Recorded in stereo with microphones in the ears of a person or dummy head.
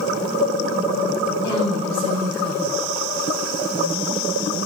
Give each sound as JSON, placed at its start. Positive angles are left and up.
{"t": 1.4, "sound": "a woman speaking", "side_deg": 25, "distance_m": 7.0}